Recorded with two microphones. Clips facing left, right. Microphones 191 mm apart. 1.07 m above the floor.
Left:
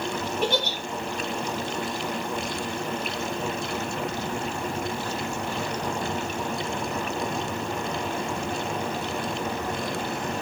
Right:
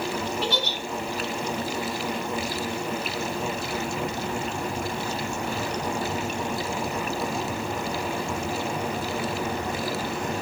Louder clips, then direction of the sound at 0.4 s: Left 2 dB; 50° left (ahead or behind).